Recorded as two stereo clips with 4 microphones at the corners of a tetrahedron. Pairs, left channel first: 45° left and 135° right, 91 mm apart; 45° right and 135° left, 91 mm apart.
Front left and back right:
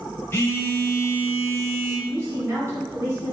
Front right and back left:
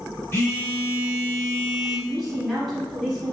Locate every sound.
0.3 s a phone buzzing: straight ahead, 0.8 m
2.1 s a woman speaking: 135° right, 1.4 m